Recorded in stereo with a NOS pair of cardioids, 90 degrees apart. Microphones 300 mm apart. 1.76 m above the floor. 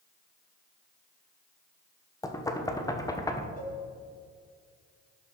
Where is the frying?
I don't hear frying.